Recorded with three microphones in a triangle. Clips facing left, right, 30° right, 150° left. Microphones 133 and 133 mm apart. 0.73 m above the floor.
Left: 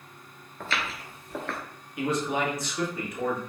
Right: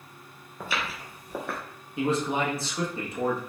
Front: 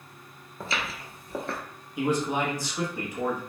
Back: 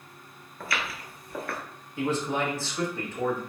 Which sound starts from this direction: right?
A man speaking, at 2.0 s.